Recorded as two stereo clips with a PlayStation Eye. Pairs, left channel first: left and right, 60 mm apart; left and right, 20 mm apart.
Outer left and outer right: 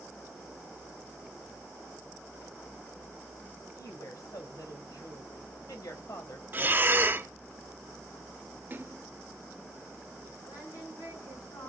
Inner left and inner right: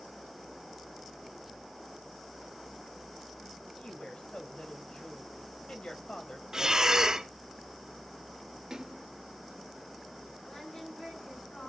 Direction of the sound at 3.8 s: 65° left (ahead or behind).